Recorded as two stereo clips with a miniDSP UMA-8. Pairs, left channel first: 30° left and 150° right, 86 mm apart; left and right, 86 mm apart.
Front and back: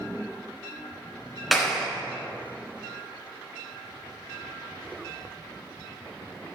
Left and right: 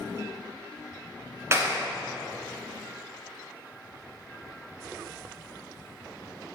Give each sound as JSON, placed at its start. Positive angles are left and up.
{"t": 1.5, "sound": "a clap", "azimuth_deg": -60, "distance_m": 1.7}